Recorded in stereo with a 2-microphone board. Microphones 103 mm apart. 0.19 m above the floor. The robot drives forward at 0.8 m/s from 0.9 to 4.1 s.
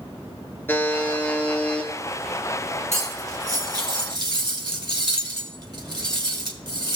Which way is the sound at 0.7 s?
20° left (ahead or behind).